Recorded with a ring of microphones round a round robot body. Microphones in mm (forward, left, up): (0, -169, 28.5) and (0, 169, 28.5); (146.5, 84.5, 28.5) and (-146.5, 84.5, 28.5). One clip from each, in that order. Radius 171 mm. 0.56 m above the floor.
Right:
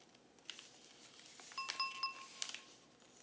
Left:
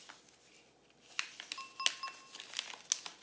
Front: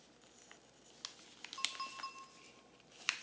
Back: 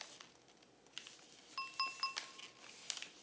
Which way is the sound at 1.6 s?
170° right.